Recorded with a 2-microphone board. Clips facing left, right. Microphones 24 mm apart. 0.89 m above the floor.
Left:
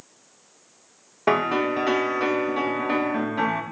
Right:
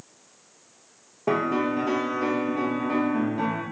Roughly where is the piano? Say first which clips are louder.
Left 3 dB; left.